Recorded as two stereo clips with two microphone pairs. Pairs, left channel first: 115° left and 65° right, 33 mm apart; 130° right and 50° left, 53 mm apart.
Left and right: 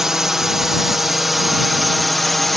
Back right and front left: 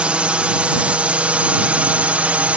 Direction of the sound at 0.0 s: Straight ahead.